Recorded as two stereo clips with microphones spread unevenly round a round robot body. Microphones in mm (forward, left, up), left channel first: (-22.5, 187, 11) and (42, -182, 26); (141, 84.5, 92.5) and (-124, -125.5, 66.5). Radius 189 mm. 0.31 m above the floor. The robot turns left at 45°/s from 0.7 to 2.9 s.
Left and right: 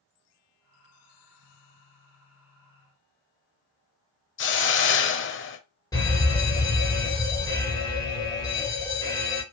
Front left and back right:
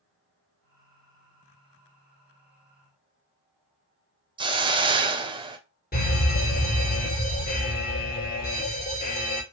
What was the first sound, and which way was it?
A hiss, 150° left.